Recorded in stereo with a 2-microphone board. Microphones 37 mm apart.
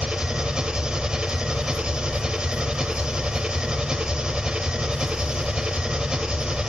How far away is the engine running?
About 1.3 m.